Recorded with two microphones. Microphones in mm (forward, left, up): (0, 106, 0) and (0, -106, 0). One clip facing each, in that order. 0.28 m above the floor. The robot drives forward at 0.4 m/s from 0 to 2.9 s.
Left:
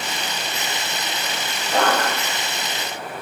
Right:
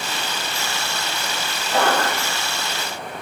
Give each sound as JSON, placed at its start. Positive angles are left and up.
{"t": 1.7, "sound": "a zipper", "side_deg": 5, "distance_m": 7.5}